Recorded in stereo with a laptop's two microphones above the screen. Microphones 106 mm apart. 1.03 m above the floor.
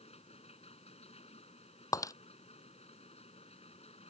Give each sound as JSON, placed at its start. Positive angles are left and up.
{"t": 0.0, "sound": "a machine running", "side_deg": 70}
{"t": 1.9, "sound": "breaking glass", "side_deg": 30}